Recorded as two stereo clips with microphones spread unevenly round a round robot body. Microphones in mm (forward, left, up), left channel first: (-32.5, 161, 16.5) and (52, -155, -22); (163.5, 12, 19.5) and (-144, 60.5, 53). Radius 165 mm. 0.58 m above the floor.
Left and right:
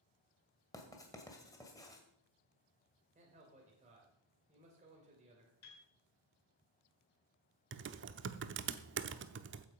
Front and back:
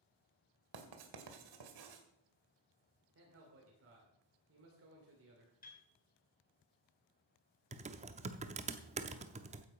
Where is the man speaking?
140° right, 2.5 m.